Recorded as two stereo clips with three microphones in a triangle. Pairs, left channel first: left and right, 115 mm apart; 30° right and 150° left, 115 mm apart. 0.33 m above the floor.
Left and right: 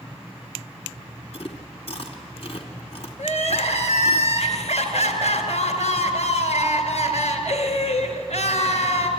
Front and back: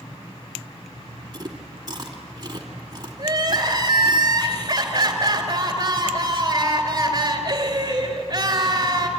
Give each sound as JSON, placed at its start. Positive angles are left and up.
{"t": 1.3, "sound": "chewing", "azimuth_deg": 100, "distance_m": 2.5}
{"t": 3.2, "sound": "crying", "azimuth_deg": 95, "distance_m": 3.0}